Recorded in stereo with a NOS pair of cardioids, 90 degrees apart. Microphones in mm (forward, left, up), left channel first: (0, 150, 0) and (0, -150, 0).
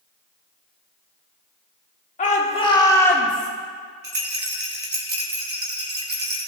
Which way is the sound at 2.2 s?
25° left.